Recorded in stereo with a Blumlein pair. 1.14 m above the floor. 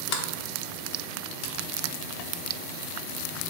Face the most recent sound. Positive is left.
turn(degrees=40)